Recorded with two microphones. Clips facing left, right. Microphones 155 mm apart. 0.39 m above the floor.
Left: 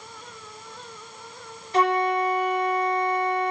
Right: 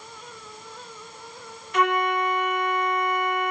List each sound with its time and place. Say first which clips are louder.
1.7 s a flute: left 2 dB; 30° left (ahead or behind), 0.9 m